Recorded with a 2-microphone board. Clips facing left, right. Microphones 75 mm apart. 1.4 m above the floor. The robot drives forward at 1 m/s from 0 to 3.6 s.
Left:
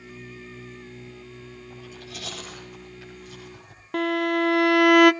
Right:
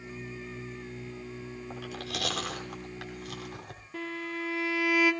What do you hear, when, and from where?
1.7 s chewing: 80° right, 5.5 m
3.9 s a violin: 70° left (ahead or behind), 0.7 m